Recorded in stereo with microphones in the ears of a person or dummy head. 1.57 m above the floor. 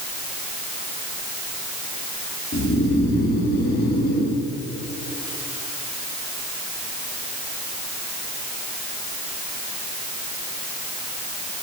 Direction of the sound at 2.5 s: 55° left (ahead or behind).